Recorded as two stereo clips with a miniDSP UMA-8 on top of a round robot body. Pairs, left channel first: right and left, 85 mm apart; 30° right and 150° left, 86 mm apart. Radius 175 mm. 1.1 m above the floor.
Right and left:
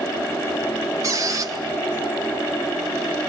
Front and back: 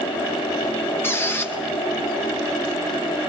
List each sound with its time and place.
1.0 s a squeak: 35° left, 1.6 m